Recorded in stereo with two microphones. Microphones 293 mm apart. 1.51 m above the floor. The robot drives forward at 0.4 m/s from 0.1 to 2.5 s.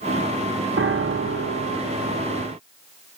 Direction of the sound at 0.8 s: 45° right (ahead or behind).